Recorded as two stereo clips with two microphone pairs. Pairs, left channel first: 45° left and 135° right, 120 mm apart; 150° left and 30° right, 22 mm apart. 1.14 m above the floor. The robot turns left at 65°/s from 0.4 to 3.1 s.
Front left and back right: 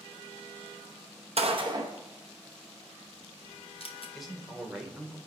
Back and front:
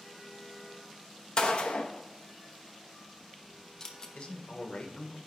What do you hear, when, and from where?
1.4 s a gunshot: 160° right, 0.9 m; by 4.0 s 85° left, 0.9 m
4.2 s a man speaking: 135° left, 1.2 m